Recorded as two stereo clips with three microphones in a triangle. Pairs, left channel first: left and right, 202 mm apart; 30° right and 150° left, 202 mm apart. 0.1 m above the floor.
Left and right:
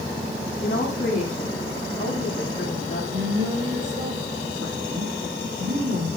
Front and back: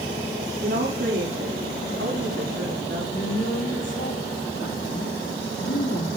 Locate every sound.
0.6 s a woman speaking: 140° left, 7.5 m; by 3.0 s 145° left, 9.5 m
3.1 s a woman speaking: 55° right, 6.5 m